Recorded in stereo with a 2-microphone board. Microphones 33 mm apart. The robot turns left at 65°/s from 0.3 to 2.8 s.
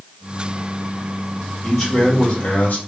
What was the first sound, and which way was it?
A man speaking, straight behind.